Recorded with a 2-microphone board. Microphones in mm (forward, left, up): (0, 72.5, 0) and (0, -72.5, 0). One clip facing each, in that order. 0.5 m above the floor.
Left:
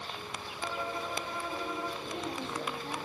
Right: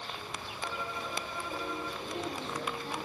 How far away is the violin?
About 1.0 m.